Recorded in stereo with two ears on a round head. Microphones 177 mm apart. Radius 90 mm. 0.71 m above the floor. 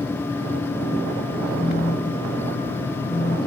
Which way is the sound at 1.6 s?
30° left (ahead or behind).